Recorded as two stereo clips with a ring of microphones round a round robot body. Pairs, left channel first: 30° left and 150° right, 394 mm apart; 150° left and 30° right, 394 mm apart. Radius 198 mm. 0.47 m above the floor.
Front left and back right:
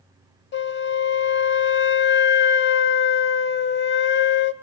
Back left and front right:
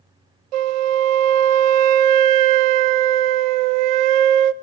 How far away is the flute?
About 0.7 m.